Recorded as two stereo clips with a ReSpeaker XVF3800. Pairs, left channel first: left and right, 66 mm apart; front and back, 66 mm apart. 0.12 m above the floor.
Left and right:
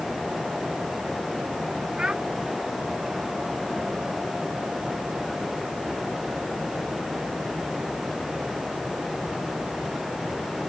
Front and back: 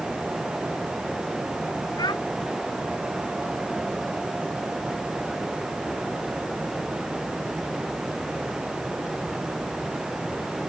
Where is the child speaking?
10° right.